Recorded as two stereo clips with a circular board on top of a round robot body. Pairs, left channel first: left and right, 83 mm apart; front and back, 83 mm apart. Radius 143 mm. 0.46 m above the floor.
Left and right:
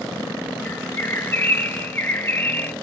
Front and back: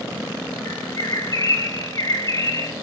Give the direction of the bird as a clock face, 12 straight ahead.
11 o'clock.